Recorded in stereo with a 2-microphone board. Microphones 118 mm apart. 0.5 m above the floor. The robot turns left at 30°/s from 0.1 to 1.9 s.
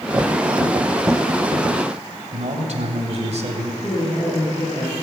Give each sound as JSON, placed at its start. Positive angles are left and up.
{"t": 2.3, "sound": "a man speaking", "side_deg": -60, "distance_m": 2.5}
{"t": 3.8, "sound": "a woman speaking", "side_deg": 45, "distance_m": 8.0}